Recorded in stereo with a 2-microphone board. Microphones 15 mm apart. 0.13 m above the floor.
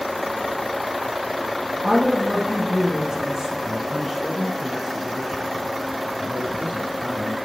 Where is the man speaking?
35° right (ahead or behind), 1.7 m.